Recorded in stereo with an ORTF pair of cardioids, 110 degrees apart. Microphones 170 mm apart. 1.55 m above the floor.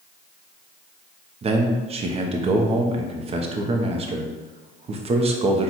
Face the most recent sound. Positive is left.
turn(degrees=-40)